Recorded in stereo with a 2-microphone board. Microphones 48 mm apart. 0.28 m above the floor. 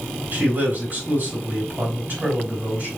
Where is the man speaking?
40° right (ahead or behind), 3 m.